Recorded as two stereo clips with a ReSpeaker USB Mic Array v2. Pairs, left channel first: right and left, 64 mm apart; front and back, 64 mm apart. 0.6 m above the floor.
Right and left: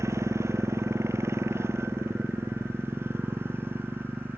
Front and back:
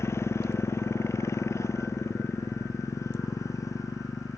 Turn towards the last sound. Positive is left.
turn(degrees=35)